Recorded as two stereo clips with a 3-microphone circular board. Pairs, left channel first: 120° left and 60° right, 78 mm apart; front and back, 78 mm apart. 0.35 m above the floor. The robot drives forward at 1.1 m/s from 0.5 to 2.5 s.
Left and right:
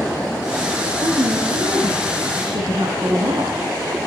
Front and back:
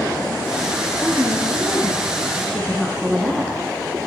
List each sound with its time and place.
0.8 s a woman speaking: 55° right, 4.5 m; by 3.5 s 80° right, 4 m